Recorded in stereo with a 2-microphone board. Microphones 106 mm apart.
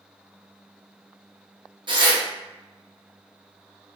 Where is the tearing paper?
50° right (ahead or behind), 0.6 m.